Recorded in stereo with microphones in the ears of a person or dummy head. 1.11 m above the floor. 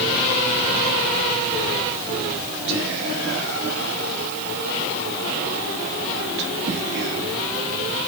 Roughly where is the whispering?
Right.